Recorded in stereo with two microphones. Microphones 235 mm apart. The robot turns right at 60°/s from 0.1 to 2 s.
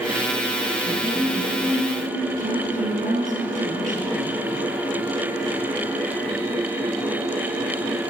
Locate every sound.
0.9 s a woman speaking: 145° left, 3.5 m; by 4.4 s 145° right, 3.5 m